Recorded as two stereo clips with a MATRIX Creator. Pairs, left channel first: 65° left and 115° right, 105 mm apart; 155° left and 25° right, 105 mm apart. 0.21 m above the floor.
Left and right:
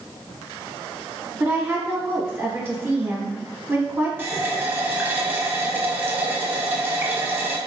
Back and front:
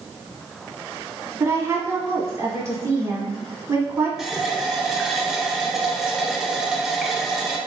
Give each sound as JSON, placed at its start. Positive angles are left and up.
{"t": 1.4, "sound": "a woman speaking", "azimuth_deg": -60, "distance_m": 1.2}
{"t": 4.2, "sound": "a running tap", "azimuth_deg": -105, "distance_m": 0.7}